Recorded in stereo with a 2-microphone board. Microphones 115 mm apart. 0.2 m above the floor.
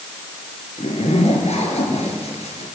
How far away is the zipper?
About 4.5 m.